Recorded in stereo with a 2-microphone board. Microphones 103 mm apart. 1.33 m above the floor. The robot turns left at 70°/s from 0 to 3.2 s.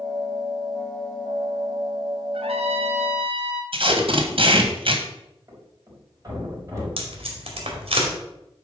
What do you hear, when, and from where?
2.3 s a trumpet: 55° right, 1.1 m; by 3.6 s 115° right, 1.1 m
3.7 s tape being pulled: 60° right (ahead or behind), 1.5 m
5.5 s a thud: 30° right (ahead or behind), 3.5 m
7.0 s tape being pulled: 65° right (ahead or behind), 2.5 m